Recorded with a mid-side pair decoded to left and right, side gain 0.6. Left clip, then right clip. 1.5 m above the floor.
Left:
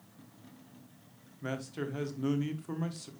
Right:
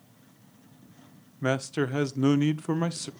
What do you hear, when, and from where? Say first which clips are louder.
1.4 s a man speaking: right 10 dB; 50° right, 0.9 m